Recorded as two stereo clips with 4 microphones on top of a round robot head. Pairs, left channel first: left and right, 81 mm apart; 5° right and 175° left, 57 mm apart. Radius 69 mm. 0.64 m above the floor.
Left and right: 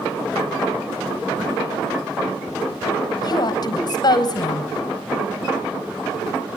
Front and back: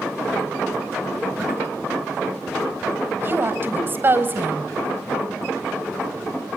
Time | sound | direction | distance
3.2 | a woman speaking | 125° left | 4.5 m